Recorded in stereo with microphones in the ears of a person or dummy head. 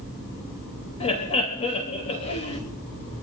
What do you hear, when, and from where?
1.0 s laughter: 30° left (ahead or behind), 3.5 m